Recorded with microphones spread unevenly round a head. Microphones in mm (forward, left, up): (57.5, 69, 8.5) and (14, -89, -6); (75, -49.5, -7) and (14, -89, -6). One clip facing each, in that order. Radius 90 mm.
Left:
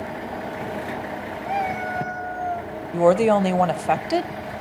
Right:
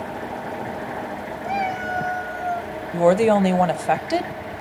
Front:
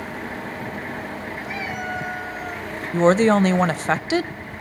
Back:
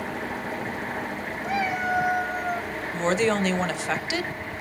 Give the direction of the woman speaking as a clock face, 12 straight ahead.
1 o'clock.